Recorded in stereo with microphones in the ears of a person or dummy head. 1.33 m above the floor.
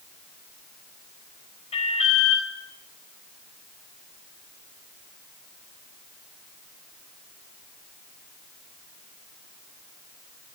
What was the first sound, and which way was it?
An alarm, 35° left (ahead or behind).